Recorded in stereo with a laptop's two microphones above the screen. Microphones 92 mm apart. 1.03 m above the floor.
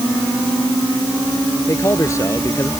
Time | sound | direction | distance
1.7 | a man speaking | 35° left (ahead or behind) | ?